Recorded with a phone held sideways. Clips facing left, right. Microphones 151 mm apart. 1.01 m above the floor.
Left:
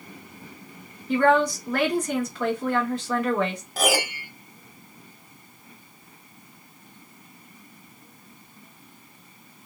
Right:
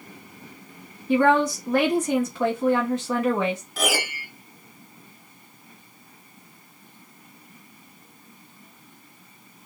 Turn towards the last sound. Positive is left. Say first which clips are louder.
# left 8 dB
turn(degrees=45)  # may be behind; listen again after turning